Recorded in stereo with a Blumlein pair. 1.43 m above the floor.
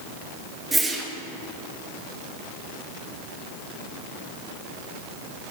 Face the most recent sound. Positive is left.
turn(degrees=-10)